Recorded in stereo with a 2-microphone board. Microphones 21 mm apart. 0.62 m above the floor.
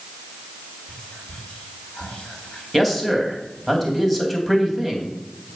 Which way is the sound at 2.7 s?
5° left (ahead or behind).